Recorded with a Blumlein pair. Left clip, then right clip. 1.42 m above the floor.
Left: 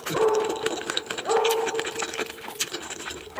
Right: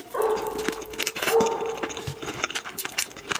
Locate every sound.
0.1 s a dog barking: 5° right, 3 m; by 3.4 s 55° left, 5 m